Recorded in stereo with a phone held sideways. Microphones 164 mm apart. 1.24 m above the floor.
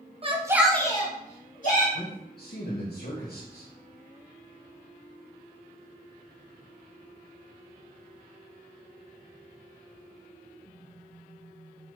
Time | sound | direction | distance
0.2 | a shout | 35° right (ahead or behind) | 0.9 m
1.9 | a man speaking | 75° left (ahead or behind) | 1.0 m